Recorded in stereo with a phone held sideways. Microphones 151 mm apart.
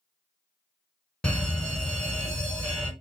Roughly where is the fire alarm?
Centre.